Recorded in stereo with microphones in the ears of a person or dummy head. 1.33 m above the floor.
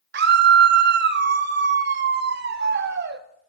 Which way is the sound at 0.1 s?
50° right (ahead or behind).